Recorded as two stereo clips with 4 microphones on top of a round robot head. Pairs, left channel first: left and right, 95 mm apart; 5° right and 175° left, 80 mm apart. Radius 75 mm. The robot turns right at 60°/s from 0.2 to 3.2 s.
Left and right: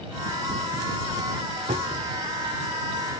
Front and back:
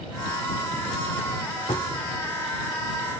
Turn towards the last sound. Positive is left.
turn(degrees=30)